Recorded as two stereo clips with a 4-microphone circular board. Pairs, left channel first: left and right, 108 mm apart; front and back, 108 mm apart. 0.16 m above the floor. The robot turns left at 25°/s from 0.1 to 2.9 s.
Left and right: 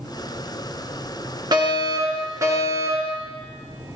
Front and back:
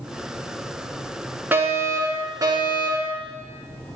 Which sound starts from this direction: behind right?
A fire alarm, at 1.5 s.